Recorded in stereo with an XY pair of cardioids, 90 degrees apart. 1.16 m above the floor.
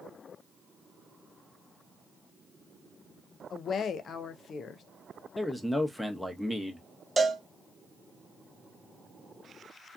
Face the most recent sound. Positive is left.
turn(degrees=-20)